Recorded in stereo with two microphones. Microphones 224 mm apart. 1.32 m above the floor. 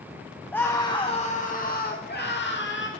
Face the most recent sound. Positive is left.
turn(degrees=60)  # may be behind; listen again after turning